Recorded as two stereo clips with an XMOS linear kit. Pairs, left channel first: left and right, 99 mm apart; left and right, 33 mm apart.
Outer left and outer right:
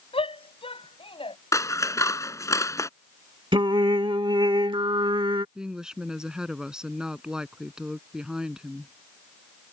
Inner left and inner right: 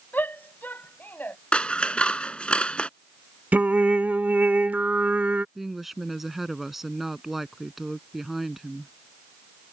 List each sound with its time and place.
0.1 s a shout: 75° left (ahead or behind); by 1.4 s 70° left (ahead or behind)
1.5 s scissors: 35° left (ahead or behind)
3.5 s singing: 60° right (ahead or behind)
5.5 s a woman speaking: 5° right (ahead or behind)